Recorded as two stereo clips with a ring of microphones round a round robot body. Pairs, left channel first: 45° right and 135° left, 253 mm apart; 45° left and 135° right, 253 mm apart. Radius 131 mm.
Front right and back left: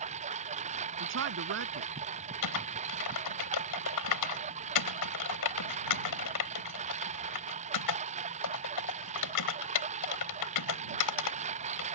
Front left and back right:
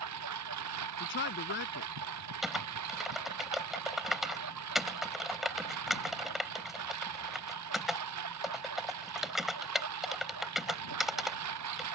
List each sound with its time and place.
0.0 s a lawn mower: 160° right
1.0 s a man speaking: 95° left
2.4 s typing on a keyboard: 45° right